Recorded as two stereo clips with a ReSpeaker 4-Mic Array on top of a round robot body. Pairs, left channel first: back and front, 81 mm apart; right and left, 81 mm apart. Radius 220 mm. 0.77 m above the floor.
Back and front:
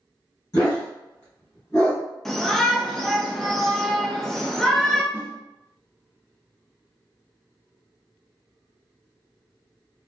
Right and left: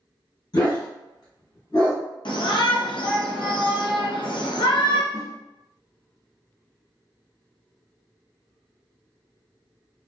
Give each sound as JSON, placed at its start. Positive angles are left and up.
{"t": 0.5, "sound": "a dog barking", "azimuth_deg": -130, "distance_m": 1.5}
{"t": 2.2, "sound": "a shout", "azimuth_deg": -95, "distance_m": 0.8}
{"t": 5.1, "sound": "a whoosh", "azimuth_deg": -55, "distance_m": 0.9}